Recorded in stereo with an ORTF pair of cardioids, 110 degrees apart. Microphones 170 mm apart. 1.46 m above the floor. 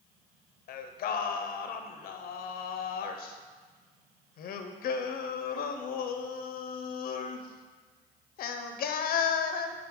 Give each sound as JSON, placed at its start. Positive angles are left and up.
{"t": 0.7, "sound": "singing", "azimuth_deg": 60, "distance_m": 0.6}